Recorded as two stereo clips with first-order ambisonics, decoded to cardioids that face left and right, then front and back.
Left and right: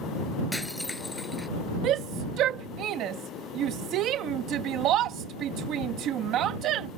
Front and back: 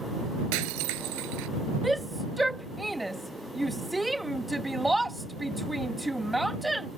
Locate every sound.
0.5 s breaking glass: 175° left
1.8 s a shout: 95° right